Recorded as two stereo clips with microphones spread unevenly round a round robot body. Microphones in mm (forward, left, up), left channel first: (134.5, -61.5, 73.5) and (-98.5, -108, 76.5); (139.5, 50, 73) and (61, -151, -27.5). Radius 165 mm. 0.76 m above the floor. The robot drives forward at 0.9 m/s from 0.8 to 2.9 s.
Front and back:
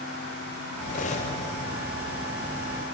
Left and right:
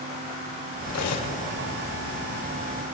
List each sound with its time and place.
0.9 s cutlery clinking: 70° left, 2 m; by 1.3 s 80° left, 2 m